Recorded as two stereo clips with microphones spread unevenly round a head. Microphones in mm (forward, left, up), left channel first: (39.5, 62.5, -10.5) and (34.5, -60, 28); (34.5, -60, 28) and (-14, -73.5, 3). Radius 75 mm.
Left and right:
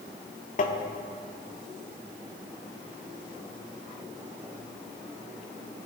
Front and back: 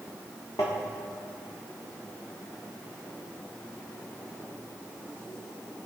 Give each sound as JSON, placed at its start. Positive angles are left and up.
{"t": 0.6, "sound": "tapping", "azimuth_deg": 65, "distance_m": 0.9}